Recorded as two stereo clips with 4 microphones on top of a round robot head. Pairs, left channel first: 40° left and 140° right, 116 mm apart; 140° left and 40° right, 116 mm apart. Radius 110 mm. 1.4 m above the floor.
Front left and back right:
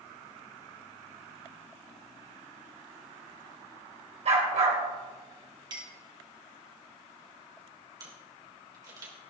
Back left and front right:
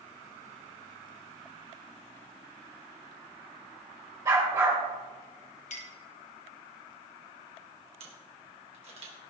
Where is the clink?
165° left, 1.6 m.